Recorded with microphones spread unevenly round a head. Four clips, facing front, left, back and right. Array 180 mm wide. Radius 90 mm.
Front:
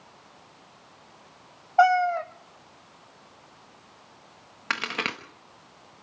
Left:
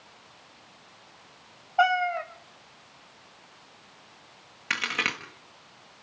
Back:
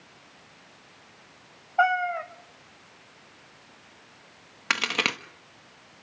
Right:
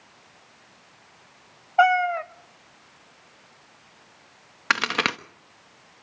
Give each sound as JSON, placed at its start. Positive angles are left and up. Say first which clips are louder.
{"t": 1.8, "sound": "a cat meowing", "louder": "right 4 dB, front 4 dB", "azimuth_deg": -35, "distance_m": 0.9}
{"t": 4.7, "sound": "a crack", "louder": "right 7 dB, back 2 dB", "azimuth_deg": -100, "distance_m": 1.1}